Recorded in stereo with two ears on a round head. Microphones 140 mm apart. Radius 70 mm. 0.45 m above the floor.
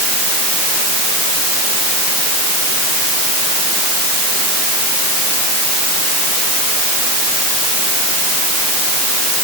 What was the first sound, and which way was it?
Only background noise.